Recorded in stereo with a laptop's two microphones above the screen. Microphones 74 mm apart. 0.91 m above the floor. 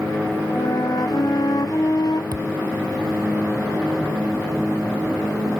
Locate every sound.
0.5 s a flute: 70° left (ahead or behind)
2.3 s a thud: 75° right (ahead or behind)